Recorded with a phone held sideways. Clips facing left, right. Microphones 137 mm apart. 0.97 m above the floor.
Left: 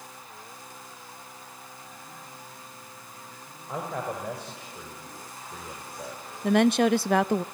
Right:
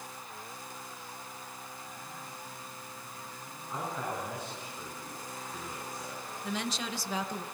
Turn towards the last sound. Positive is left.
turn(degrees=60)  # may be behind; listen again after turning